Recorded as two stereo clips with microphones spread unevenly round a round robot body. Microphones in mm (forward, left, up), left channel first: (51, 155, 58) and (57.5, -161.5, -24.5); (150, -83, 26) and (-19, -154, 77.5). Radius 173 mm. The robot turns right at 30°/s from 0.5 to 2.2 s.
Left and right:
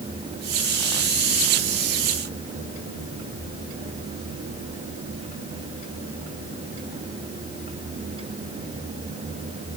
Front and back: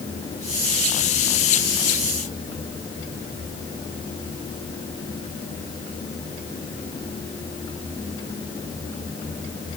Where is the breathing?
I don't hear breathing.